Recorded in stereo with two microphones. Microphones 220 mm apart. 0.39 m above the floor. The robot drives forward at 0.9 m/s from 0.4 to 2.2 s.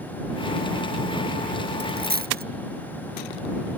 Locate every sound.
1.8 s a dropped coin: 55° right (ahead or behind); by 2.5 s 50° right (ahead or behind)